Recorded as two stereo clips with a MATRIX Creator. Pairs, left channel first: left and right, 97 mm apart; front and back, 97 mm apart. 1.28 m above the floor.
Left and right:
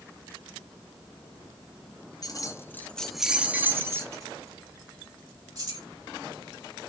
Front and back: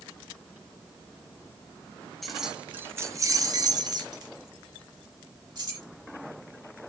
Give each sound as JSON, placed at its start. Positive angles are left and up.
{"t": 2.2, "sound": "keys jangling", "azimuth_deg": 90, "distance_m": 0.6}